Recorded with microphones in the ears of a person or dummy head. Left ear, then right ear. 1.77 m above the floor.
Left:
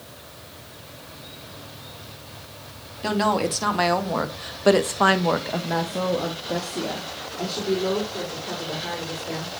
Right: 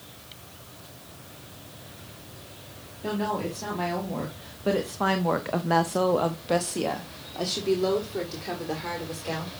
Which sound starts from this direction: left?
A woman speaking, at 3.0 s.